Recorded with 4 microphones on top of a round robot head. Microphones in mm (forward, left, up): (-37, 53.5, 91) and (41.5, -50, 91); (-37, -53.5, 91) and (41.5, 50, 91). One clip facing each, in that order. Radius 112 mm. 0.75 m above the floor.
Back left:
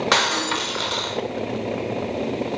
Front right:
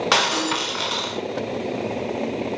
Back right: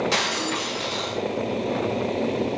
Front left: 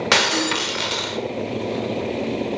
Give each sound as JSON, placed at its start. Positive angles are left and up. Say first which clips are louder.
{"t": 0.1, "sound": "breaking glass", "louder": "front right 1 dB, front left 5 dB", "azimuth_deg": 35, "distance_m": 1.5}